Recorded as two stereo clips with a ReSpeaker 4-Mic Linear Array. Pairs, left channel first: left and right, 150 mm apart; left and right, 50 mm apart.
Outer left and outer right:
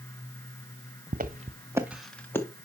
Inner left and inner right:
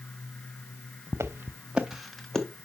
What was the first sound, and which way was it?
Footsteps, 65° right (ahead or behind).